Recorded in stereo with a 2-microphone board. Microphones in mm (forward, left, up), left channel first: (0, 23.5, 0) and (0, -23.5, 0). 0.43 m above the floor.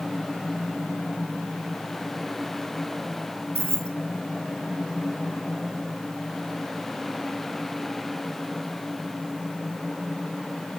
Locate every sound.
3.5 s keys jangling: 70° right (ahead or behind), 1.6 m